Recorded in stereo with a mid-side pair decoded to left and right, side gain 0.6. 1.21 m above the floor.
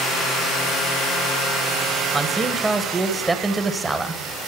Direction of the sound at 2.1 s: 15° right.